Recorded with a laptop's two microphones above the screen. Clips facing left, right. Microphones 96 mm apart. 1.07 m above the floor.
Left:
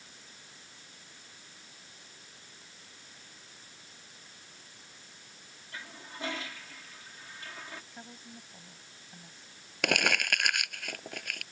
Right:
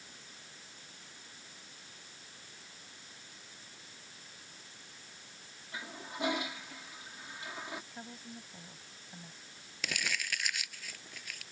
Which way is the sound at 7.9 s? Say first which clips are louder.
Right 1 dB; 5° right (ahead or behind).